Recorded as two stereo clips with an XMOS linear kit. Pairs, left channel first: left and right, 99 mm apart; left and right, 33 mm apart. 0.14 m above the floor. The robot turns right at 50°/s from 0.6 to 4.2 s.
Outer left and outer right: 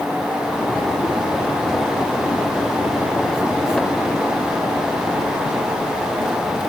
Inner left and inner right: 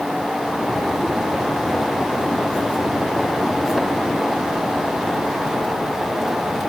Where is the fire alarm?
I don't hear a fire alarm.